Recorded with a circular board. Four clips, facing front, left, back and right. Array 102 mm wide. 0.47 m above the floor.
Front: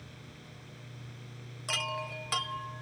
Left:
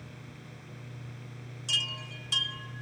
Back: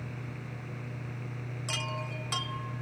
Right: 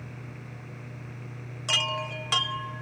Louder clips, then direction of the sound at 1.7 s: Right 11 dB, front 2 dB; 80° right.